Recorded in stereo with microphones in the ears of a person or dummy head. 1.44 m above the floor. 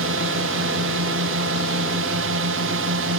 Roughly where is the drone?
Right.